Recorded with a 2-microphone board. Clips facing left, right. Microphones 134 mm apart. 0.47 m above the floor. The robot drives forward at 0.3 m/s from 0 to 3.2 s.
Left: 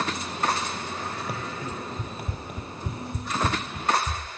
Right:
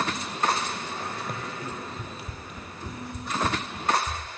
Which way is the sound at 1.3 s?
5° left (ahead or behind).